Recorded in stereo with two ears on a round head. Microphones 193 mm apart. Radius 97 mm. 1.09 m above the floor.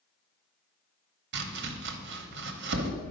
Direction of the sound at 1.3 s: 50° right (ahead or behind).